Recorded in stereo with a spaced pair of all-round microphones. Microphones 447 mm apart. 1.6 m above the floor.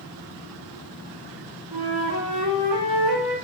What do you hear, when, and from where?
1.7 s a flute: 60° right (ahead or behind), 0.9 m